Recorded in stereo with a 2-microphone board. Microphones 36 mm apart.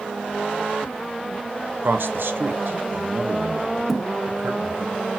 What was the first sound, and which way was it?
A man speaking, 80° right.